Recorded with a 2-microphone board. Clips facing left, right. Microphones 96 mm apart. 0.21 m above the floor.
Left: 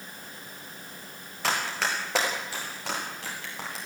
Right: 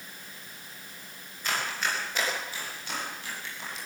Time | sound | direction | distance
1.4 | running footsteps | 90° left | 8.5 m